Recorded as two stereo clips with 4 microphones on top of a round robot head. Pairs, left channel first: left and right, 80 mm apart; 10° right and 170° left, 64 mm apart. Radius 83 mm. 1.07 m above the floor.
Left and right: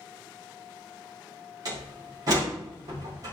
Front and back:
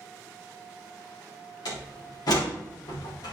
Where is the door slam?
40° right, 2.5 m.